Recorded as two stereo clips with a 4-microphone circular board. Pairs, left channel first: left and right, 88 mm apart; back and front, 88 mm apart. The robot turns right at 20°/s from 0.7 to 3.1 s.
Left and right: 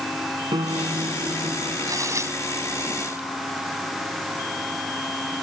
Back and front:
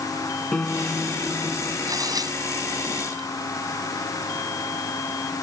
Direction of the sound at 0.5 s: 100° right.